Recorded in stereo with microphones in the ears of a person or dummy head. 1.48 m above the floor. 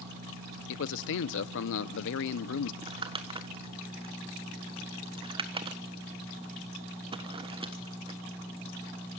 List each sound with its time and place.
0.7 s a man speaking: 70° left (ahead or behind), 0.8 m
2.8 s crumpling: 25° right (ahead or behind), 1.3 m